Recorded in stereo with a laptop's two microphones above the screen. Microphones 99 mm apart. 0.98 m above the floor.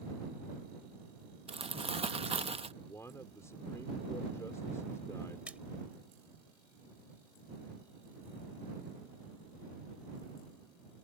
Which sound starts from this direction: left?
A man speaking, at 2.8 s.